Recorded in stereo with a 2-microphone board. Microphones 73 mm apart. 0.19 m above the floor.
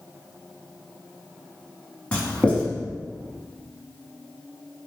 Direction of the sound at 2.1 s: 20° left (ahead or behind).